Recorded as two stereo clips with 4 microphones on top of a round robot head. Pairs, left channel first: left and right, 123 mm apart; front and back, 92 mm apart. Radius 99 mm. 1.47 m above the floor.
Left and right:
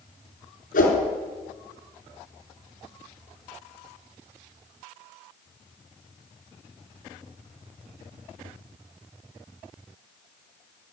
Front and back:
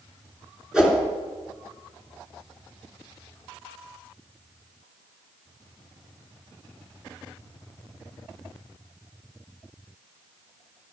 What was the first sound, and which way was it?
A whoosh, 95° left.